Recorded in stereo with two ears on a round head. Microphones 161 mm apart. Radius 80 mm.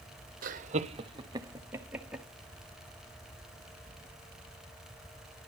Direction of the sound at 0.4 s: 50° right (ahead or behind).